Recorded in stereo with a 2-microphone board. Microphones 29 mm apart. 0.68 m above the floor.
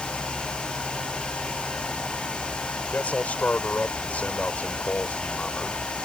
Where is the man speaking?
70° left (ahead or behind).